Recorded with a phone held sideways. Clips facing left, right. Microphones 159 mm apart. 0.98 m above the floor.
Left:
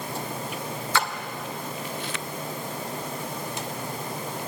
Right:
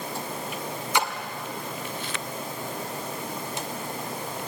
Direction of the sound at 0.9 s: 15° right (ahead or behind).